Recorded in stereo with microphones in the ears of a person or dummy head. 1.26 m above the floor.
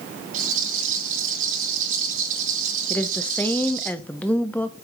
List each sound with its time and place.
0.3 s a rattle: 45° right (ahead or behind), 4.5 m
2.9 s a woman speaking: 10° left (ahead or behind), 0.5 m